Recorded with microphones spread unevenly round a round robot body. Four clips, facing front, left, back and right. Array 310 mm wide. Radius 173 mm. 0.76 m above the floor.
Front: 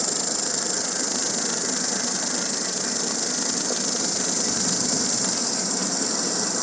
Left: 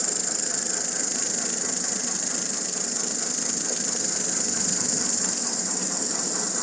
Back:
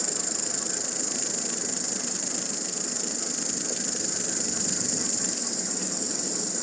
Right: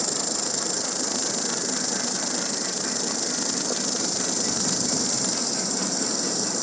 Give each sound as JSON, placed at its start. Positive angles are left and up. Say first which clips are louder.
{"t": 0.0, "sound": "an insect", "louder": "right 4 dB, front 5 dB", "azimuth_deg": -20, "distance_m": 0.9}